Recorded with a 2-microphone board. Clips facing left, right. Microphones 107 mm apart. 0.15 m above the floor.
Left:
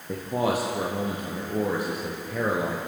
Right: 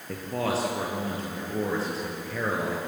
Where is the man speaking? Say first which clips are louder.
Left 3 dB; 15° left (ahead or behind), 3.5 m.